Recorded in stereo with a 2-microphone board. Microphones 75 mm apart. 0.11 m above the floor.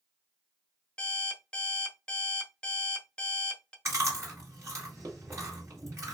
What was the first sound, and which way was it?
An alarm clock, 15° left (ahead or behind).